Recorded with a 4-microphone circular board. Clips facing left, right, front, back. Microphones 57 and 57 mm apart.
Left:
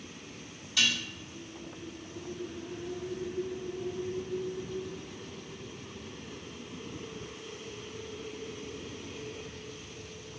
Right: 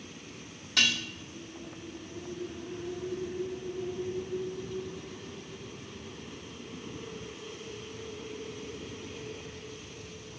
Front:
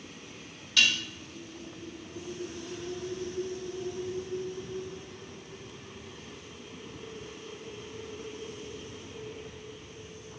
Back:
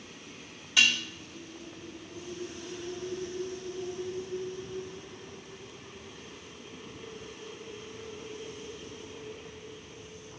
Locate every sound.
0.8 s dishes clattering: 105° right, 1.0 m